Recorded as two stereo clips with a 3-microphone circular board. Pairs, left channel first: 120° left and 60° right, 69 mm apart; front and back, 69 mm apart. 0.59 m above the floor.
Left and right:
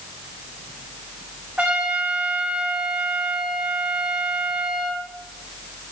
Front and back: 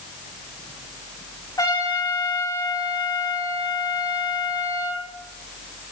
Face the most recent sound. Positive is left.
turn(degrees=10)